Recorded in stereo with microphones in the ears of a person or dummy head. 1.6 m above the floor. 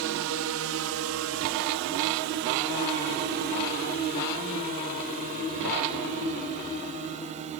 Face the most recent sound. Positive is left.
turn(degrees=-30)  # may be behind; listen again after turning